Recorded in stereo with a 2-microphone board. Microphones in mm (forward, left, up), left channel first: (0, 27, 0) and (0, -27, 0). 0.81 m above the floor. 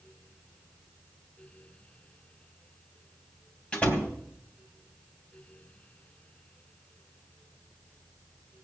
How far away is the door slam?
About 3 m.